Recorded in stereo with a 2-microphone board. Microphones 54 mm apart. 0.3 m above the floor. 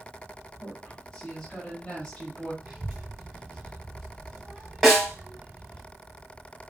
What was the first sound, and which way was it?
A woman speaking, 15° left (ahead or behind).